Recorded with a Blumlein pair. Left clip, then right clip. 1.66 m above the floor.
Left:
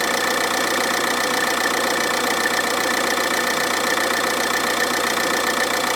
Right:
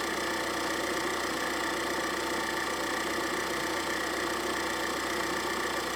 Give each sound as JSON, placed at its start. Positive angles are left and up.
{"t": 0.0, "sound": "an engine running", "azimuth_deg": 40, "distance_m": 1.3}